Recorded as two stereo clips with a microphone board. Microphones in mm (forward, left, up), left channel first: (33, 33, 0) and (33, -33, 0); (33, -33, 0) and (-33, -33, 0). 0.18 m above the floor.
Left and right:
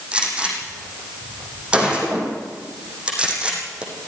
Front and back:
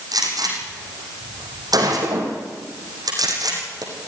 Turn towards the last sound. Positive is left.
turn(degrees=-165)